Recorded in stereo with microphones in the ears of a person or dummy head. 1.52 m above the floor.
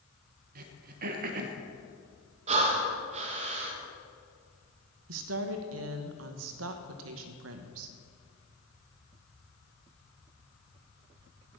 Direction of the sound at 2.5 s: 40° right (ahead or behind).